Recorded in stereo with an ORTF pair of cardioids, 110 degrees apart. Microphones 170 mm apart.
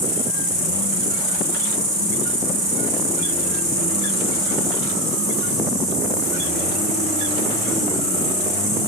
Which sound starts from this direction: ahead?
An insect, at 0.0 s.